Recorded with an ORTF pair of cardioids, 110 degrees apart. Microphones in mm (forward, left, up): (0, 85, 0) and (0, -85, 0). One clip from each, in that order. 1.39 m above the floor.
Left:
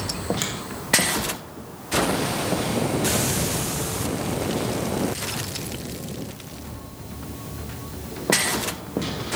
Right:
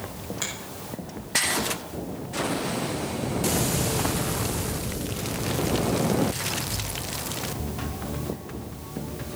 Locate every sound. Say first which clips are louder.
0.4 s a finger snap: right 1 dB; 40° left, 7 m